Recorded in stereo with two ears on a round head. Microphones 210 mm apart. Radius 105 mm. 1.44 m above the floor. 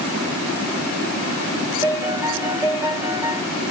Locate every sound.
1.8 s a piano: 15° right (ahead or behind), 2.5 m